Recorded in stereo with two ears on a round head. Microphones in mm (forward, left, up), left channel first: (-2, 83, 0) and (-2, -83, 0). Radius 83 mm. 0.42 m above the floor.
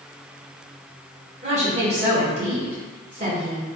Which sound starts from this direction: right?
A woman speaking, at 1.4 s.